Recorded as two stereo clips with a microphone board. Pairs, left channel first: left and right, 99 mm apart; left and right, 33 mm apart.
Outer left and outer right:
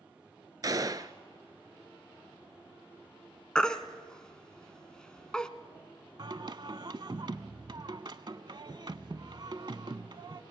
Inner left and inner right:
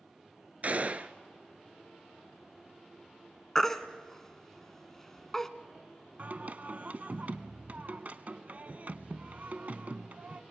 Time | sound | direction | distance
0.6 | a gunshot | 40° right (ahead or behind) | 0.8 m
3.5 | a baby crying | 10° left (ahead or behind) | 1.0 m
6.2 | singing | 50° right (ahead or behind) | 0.7 m